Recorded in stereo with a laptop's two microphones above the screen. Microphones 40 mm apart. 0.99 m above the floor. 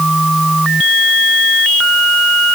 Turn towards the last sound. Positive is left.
No sound to turn to.